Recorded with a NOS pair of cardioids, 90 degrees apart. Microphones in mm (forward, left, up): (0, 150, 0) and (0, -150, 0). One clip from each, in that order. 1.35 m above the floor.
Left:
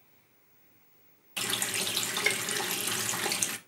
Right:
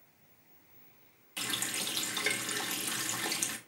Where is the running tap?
30° left, 1.0 m.